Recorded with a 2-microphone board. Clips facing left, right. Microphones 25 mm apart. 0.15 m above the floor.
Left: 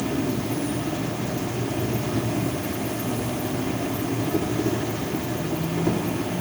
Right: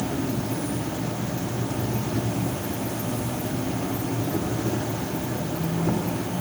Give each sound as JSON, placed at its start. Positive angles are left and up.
{"t": 0.0, "sound": "an insect", "side_deg": 60, "distance_m": 4.5}